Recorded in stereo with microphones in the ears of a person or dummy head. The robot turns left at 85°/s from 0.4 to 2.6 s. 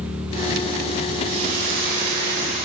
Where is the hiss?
30° right, 2 m; by 2.7 s 145° right, 2 m.